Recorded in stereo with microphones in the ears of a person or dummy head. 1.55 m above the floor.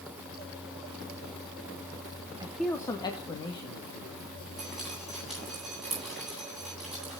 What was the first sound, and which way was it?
A man speaking, 20° right (ahead or behind).